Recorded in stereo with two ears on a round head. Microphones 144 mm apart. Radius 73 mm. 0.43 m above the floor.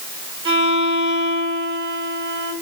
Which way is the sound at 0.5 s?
35° right (ahead or behind).